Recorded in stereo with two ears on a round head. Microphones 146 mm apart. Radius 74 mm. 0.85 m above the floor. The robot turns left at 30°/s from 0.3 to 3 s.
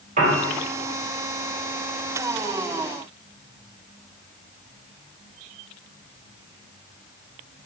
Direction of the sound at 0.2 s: 50° right (ahead or behind).